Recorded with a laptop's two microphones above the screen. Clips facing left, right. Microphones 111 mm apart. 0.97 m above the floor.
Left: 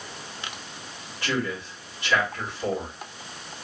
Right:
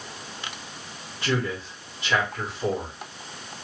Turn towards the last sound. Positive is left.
turn(degrees=-20)  # may be behind; listen again after turning